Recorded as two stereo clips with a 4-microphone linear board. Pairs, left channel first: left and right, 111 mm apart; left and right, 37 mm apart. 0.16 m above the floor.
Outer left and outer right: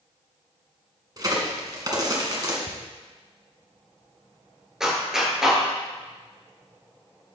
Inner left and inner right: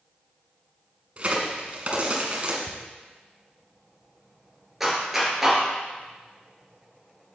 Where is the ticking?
35° left (ahead or behind), 1.8 m.